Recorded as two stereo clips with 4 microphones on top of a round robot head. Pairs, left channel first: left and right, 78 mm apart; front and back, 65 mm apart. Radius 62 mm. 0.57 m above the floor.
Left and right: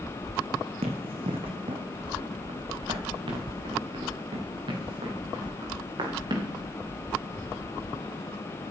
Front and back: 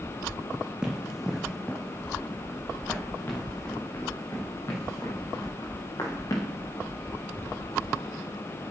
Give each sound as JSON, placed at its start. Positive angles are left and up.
{"t": 0.8, "sound": "running footsteps", "azimuth_deg": -95, "distance_m": 1.5}